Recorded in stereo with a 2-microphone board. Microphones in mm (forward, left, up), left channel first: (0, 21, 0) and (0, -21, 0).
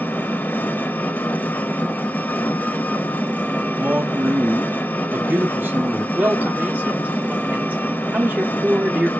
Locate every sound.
0.0 s an engine running: 50° left (ahead or behind), 1.1 m
3.8 s a man speaking: 65° right (ahead or behind), 1.6 m
6.2 s a man speaking: 50° right (ahead or behind), 1.6 m